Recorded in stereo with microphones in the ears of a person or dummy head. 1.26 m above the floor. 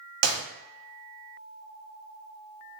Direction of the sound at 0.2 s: 65° right (ahead or behind).